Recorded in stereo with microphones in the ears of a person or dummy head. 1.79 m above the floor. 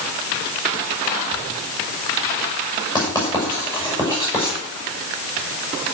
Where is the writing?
15° left (ahead or behind), 6.5 m.